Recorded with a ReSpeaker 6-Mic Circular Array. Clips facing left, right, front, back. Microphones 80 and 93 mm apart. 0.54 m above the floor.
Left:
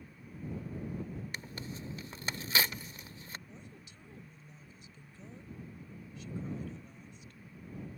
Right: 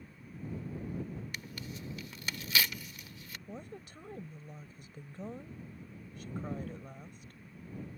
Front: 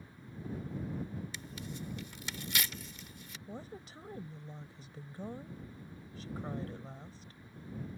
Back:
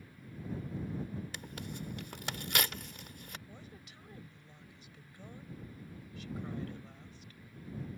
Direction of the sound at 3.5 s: 55° right.